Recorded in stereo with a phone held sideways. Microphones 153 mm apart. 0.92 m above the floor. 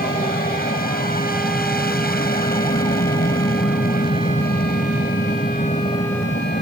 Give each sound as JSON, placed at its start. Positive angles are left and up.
{"t": 0.0, "sound": "an aircraft", "side_deg": 75}